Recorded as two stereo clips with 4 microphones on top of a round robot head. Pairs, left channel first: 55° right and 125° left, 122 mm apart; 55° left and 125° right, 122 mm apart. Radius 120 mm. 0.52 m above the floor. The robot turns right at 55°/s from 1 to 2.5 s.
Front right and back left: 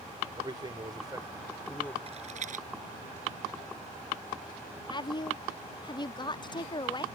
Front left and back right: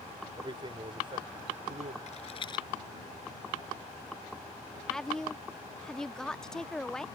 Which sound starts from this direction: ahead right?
A woman speaking, at 4.9 s.